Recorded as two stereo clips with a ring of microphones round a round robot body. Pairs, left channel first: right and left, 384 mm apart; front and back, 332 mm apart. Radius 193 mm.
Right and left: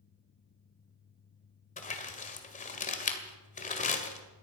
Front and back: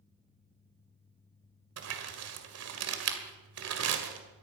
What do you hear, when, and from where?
1.8 s crumpling: 155° right, 2.0 m